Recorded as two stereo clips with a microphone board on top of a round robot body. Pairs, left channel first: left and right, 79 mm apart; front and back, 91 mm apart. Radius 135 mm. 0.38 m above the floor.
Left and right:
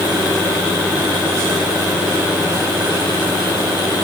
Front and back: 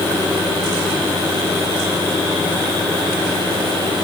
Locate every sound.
Only background noise.